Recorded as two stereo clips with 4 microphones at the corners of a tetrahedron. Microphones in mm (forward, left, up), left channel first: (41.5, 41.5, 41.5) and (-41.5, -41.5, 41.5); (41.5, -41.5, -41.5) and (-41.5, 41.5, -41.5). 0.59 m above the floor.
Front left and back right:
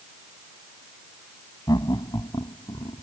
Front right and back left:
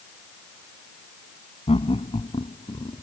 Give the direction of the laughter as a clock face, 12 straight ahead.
12 o'clock.